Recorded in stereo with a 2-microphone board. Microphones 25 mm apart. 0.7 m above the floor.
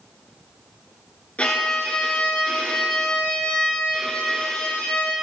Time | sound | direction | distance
1.4 | a violin | 65° left (ahead or behind) | 1.4 m